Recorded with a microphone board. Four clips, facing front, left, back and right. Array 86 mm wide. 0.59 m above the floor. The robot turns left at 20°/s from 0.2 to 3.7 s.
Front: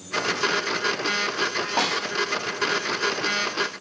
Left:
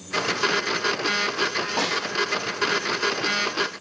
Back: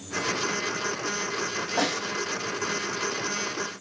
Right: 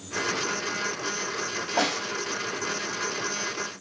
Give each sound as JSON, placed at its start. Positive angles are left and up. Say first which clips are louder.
{"t": 1.8, "sound": "a snare drum", "louder": "right 2 dB, front 1 dB", "azimuth_deg": 0, "distance_m": 2.0}